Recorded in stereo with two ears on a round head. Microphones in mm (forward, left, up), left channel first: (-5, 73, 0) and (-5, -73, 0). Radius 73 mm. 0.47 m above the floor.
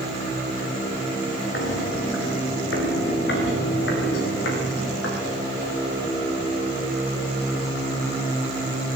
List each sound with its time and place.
1.5 s footsteps: 80° left, 7 m